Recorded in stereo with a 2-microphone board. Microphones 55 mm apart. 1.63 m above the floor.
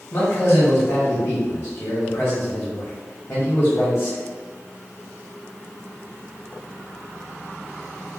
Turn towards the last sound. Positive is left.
turn(degrees=40)  # may be behind; listen again after turning